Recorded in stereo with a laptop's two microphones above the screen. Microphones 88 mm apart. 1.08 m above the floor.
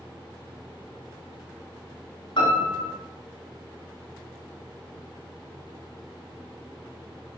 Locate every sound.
2.4 s a piano: 65° left (ahead or behind), 1.7 m